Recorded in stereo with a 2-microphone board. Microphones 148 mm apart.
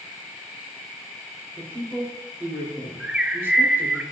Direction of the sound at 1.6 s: 15° right (ahead or behind).